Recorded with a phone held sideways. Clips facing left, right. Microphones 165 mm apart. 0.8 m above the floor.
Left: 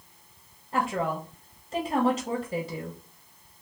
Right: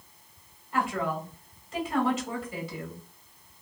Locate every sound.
0.7 s a woman speaking: 40° left (ahead or behind), 1.2 m